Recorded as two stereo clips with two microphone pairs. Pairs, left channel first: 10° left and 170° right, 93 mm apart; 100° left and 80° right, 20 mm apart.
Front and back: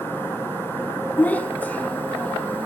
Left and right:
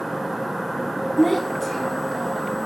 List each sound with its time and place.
1.2 s a child speaking: 45° left, 0.8 m